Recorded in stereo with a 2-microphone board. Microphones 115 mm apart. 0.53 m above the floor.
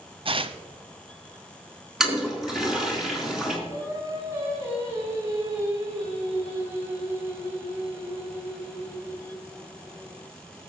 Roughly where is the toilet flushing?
Centre.